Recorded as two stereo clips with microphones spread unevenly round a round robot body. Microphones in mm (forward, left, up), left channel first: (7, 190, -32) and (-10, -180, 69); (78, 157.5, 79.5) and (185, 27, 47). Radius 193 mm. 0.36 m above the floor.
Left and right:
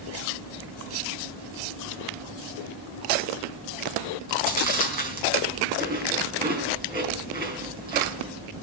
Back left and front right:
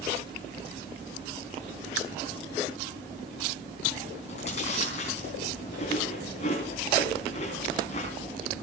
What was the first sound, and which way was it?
Chewing, 165° right.